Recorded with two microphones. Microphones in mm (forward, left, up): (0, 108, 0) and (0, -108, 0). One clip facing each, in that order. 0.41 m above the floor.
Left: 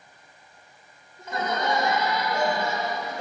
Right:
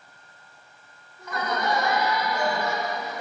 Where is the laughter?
25° left (ahead or behind), 1.3 m.